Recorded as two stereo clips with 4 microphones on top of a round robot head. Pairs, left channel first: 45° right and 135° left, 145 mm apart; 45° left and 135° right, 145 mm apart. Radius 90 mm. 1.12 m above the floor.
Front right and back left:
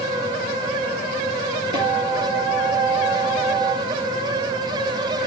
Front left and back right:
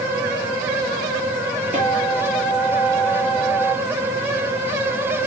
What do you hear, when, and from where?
1.7 s a guitar: 170° right, 5 m